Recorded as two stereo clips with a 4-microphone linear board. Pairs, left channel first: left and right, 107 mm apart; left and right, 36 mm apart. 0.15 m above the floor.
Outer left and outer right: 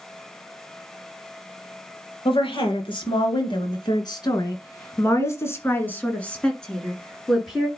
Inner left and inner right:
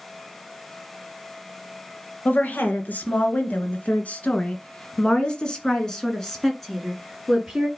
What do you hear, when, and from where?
2.2 s a woman speaking: 55° left (ahead or behind), 2.5 m; by 7.7 s 5° right (ahead or behind), 2.5 m